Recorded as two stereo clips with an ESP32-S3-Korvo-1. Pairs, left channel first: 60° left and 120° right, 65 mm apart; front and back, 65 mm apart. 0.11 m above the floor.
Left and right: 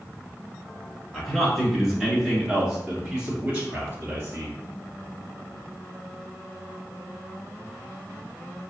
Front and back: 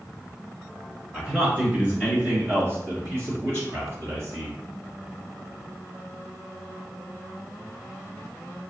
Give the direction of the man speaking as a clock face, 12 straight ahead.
8 o'clock.